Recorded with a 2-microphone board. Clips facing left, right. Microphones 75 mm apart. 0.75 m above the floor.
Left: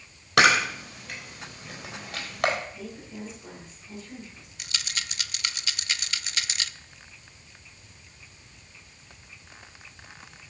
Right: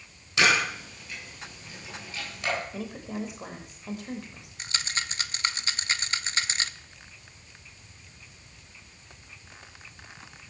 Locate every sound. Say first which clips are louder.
0.4 s a camera shutter: left 4 dB; 60° left (ahead or behind), 3.5 m
2.7 s a woman speaking: right 5 dB; 70° right (ahead or behind), 3.5 m
4.6 s a rattle: right 3 dB; 30° right (ahead or behind), 0.6 m